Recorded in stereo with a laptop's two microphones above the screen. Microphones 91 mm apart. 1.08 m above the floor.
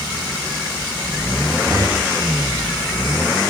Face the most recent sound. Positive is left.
turn(degrees=-35)  # may be behind; listen again after turning